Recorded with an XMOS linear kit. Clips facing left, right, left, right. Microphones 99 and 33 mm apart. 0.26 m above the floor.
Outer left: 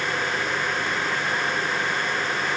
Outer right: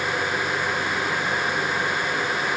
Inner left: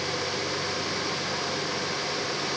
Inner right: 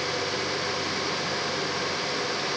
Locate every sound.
Only background noise.